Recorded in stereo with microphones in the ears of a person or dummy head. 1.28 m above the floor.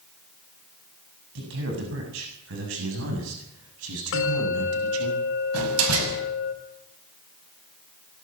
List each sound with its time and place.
1.4 s a man speaking: 65° right (ahead or behind), 7.5 m; by 5.1 s 90° right, 8.5 m
4.1 s a bell: 65° left (ahead or behind), 5 m
5.5 s a door slam: 85° right, 6 m